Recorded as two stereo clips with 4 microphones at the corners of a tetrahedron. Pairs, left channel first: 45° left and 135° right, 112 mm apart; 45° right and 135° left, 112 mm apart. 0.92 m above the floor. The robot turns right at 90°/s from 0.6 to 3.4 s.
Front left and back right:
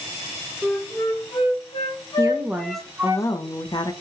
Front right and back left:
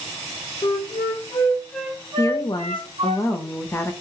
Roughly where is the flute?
Ahead right.